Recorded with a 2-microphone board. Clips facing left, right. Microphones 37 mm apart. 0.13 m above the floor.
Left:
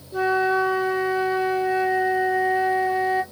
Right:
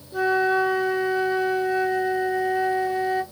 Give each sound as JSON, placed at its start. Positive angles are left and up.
{"t": 0.1, "sound": "a flute", "side_deg": 0, "distance_m": 0.8}